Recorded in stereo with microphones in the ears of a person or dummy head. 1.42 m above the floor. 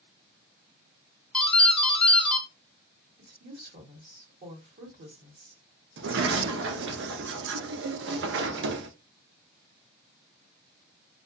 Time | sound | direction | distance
1.3 | a doorbell | 10° left (ahead or behind) | 0.7 m
3.2 | a woman speaking | 45° right (ahead or behind) | 1.0 m
6.0 | a sliding door | 55° right (ahead or behind) | 0.5 m